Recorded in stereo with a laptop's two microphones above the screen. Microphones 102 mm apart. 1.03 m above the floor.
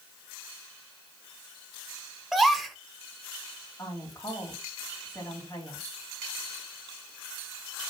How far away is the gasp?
About 1.0 m.